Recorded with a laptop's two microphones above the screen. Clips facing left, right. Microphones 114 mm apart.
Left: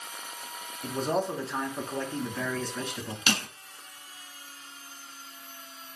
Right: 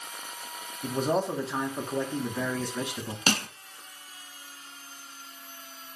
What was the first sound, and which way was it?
A man speaking, 10° right (ahead or behind).